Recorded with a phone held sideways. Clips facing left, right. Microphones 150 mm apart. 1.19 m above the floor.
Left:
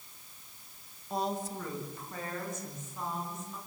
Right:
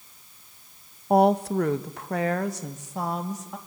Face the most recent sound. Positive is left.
turn(degrees=-80)